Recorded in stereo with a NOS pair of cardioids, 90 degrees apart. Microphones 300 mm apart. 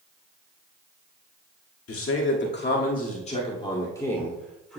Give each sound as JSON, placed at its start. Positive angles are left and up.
{"t": 1.9, "sound": "a man speaking", "azimuth_deg": 50, "distance_m": 1.9}